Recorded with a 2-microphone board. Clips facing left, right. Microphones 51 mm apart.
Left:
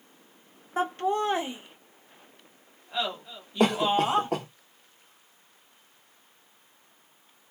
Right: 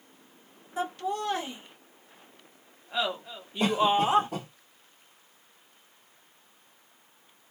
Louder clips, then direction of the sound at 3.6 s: Left 1 dB; 70° left (ahead or behind).